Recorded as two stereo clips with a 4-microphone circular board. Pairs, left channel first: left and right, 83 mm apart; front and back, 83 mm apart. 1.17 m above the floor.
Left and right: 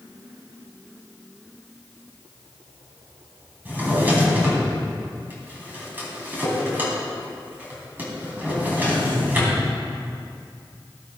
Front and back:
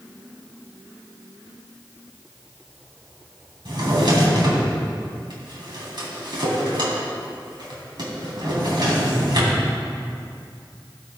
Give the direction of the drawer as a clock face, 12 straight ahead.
5 o'clock.